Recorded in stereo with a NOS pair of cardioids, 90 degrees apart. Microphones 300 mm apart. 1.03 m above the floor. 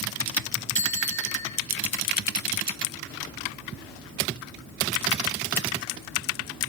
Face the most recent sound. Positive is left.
turn(degrees=40)